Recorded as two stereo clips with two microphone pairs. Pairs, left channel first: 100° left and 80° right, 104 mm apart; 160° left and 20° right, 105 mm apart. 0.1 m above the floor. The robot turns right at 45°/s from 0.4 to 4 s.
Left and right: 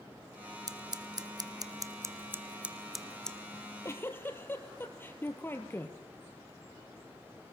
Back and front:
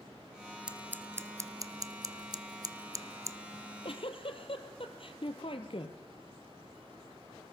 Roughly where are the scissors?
Right.